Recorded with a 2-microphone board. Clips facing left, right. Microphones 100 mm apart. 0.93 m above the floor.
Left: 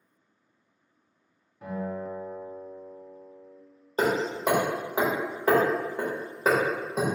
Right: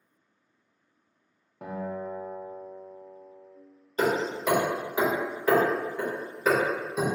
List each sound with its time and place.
1.6 s a guitar: 65° right (ahead or behind), 0.5 m
4.0 s hammering: 35° left (ahead or behind), 1.0 m